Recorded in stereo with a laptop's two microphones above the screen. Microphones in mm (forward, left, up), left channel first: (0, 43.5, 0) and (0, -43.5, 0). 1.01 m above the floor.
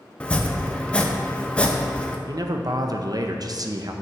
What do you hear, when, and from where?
0.2 s chopping: 15° left (ahead or behind), 0.8 m
2.3 s a man speaking: 50° right (ahead or behind), 0.6 m